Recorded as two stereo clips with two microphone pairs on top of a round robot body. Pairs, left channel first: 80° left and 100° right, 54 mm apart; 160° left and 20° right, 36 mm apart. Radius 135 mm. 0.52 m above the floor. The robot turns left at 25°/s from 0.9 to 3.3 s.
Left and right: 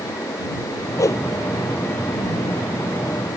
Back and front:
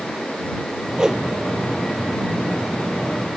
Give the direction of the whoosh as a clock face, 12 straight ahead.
10 o'clock.